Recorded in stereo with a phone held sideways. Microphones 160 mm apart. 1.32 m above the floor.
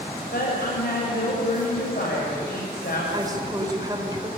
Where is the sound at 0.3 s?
75° left (ahead or behind), 7.5 m.